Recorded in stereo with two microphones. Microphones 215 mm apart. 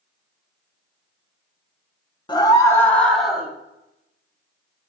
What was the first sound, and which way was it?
A scream, 20° left (ahead or behind).